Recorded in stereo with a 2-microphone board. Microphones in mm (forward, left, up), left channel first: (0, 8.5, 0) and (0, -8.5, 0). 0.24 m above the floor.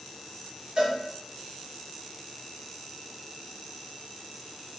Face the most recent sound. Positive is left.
turn(degrees=-40)  # may be behind; listen again after turning